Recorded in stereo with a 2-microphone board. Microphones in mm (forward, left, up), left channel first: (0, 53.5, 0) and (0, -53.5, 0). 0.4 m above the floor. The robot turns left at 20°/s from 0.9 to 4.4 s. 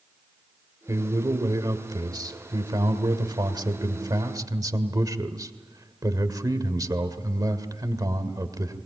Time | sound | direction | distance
0.9 | a man speaking | 50° right | 1.8 m